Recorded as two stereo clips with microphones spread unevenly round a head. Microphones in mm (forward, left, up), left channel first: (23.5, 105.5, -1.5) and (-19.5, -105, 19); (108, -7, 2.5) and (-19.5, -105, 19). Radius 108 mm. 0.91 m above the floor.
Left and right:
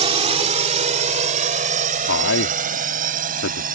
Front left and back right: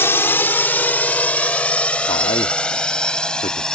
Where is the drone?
35° right; by 3.8 s 50° right.